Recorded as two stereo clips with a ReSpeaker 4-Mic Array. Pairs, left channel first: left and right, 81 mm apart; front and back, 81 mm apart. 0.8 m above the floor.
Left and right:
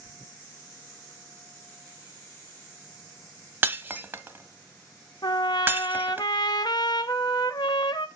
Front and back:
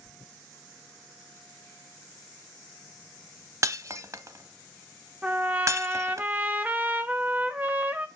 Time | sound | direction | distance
3.6 | breaking glass | 145° right | 0.9 m
5.2 | a trumpet | 110° left | 0.8 m